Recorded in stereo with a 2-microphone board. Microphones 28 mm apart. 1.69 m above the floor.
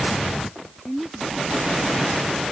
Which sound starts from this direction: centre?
A woman speaking, at 0.8 s.